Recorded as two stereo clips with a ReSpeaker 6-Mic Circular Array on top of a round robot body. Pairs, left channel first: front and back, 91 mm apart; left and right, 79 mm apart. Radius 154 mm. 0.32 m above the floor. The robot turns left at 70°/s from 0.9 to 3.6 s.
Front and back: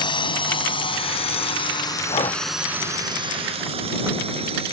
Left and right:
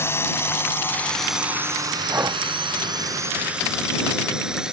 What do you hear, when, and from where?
0.0 s a drone: 30° left; by 4.7 s 170° right
2.1 s breathing: 20° right; by 2.4 s 45° right